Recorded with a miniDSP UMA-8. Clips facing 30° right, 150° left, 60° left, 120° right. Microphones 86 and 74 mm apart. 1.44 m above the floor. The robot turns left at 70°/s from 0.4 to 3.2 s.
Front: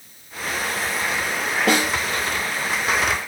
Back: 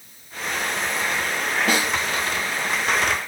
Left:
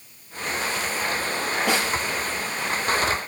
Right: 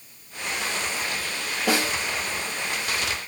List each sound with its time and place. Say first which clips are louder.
1.7 s a snare drum: front 4 dB, right 2 dB; 35° right, 6.5 m; by 1.9 s 50° right, 6.5 m